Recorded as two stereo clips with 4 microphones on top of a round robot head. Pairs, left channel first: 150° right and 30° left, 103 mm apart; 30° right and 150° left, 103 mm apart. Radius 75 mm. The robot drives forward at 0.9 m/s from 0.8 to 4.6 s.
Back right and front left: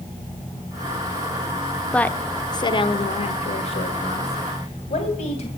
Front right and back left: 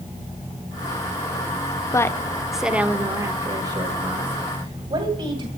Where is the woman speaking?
75° right, 1.0 m; by 5.5 s 165° right, 2.5 m.